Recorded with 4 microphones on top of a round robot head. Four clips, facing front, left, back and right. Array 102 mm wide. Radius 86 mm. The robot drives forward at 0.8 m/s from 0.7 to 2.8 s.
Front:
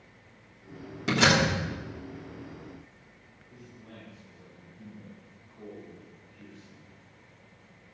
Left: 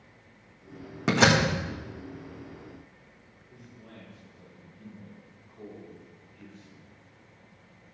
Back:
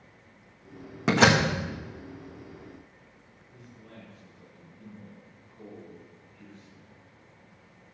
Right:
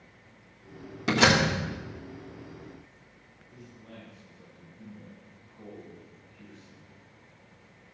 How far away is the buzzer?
No buzzer in this recording.